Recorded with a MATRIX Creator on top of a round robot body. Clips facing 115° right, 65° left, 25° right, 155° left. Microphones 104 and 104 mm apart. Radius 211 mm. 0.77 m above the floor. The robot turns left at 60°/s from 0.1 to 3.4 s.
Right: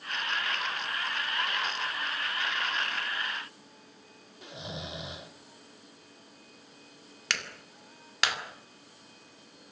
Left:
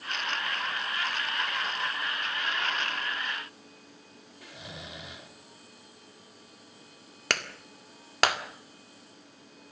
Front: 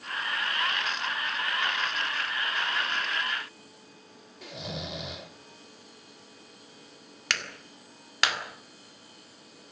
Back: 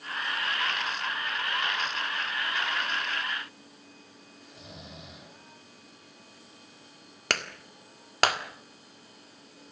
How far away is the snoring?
About 1.3 m.